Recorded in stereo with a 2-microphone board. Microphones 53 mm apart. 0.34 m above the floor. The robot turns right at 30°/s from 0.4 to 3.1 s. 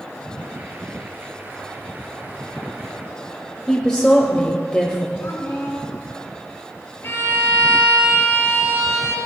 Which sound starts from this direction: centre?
A woman speaking, at 3.7 s.